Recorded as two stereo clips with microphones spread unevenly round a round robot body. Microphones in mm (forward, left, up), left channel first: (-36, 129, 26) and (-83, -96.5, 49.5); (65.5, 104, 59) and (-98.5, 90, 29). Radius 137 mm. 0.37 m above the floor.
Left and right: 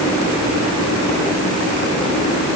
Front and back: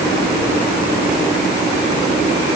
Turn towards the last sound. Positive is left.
No sound to turn to.